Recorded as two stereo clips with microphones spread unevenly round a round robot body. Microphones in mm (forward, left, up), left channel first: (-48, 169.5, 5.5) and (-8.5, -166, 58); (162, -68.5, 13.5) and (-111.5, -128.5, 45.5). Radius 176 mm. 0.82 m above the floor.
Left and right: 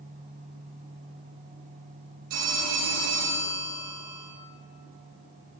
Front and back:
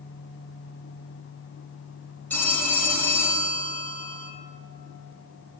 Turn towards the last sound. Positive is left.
turn(degrees=-70)